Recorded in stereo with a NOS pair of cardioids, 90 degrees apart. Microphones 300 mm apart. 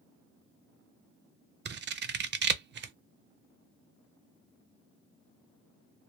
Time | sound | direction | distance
1.6 | scissors | 40° right | 0.6 m